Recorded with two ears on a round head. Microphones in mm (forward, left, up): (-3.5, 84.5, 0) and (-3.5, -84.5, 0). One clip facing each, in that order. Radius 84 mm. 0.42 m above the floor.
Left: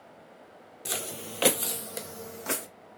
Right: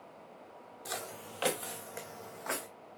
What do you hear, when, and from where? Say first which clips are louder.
0.8 s footsteps: left 5 dB; 35° left (ahead or behind), 0.7 m